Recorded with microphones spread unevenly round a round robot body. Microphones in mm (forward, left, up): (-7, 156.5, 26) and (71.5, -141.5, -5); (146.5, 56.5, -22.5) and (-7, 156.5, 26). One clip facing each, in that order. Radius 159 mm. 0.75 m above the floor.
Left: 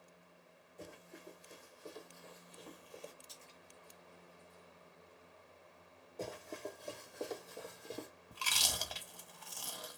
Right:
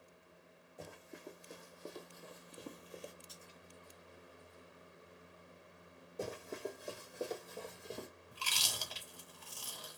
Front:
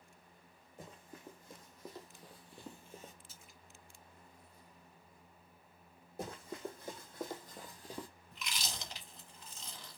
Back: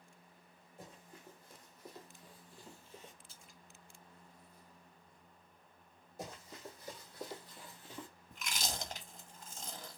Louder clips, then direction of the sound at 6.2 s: Right 2 dB, front 5 dB; straight ahead.